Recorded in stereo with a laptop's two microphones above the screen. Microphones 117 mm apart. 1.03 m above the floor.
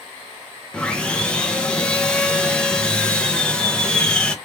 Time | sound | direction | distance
0.7 | sawing | 10° left (ahead or behind) | 0.5 m